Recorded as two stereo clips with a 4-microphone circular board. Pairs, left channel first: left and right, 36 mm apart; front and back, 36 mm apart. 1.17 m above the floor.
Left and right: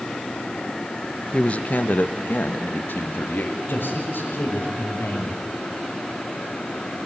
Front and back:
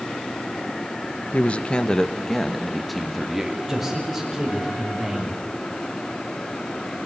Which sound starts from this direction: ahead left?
A man speaking, at 1.3 s.